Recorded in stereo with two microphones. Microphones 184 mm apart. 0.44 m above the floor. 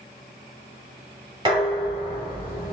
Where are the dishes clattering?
25° right (ahead or behind), 1.6 m.